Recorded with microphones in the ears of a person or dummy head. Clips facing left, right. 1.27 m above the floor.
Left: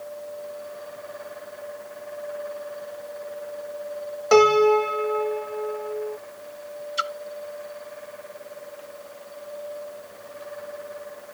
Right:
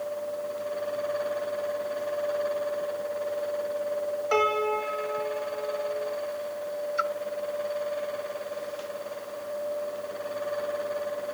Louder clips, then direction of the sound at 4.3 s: Left 12 dB; 70° left (ahead or behind).